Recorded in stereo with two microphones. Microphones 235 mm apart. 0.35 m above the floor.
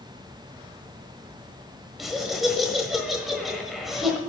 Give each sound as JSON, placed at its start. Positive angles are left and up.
{"t": 2.0, "sound": "laughter", "side_deg": 0, "distance_m": 1.4}